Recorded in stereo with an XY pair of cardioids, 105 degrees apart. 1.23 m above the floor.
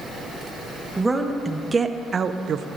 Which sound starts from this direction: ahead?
A woman speaking, at 1.0 s.